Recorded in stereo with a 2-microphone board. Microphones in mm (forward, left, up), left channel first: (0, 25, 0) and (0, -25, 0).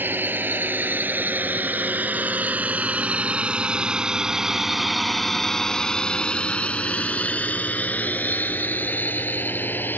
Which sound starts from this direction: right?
A drone, at 0.0 s.